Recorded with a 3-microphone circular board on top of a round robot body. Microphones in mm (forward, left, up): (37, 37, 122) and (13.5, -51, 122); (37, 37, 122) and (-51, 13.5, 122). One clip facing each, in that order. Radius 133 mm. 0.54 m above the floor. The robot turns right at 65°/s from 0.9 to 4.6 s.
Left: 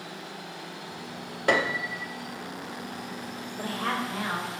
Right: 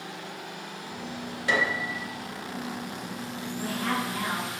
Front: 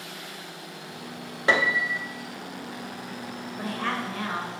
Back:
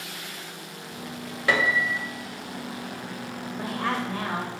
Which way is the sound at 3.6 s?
100° left.